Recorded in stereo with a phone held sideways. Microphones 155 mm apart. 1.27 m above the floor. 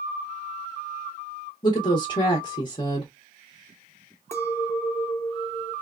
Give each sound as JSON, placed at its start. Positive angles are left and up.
{"t": 1.6, "sound": "a woman speaking", "side_deg": 35, "distance_m": 0.8}
{"t": 4.3, "sound": "a clink", "side_deg": 15, "distance_m": 0.8}